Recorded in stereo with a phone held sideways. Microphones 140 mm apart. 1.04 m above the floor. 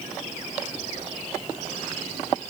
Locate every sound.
Only background noise.